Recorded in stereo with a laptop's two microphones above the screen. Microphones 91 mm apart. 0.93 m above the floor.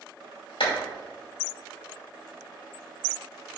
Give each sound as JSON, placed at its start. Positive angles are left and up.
{"t": 0.6, "sound": "a clap", "side_deg": 75, "distance_m": 2.5}